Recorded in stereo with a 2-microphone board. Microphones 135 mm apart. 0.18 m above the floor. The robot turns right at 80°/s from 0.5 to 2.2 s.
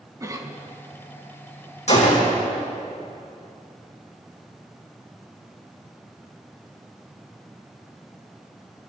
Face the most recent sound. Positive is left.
turn(degrees=80)